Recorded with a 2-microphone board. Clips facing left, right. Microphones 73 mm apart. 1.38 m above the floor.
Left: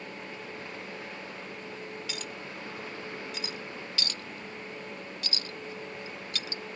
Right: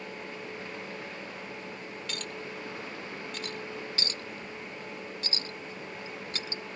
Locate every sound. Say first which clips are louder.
2.1 s a clink: right 1 dB; 5° left (ahead or behind)
4.0 s a clink: right 1 dB; 35° right (ahead or behind)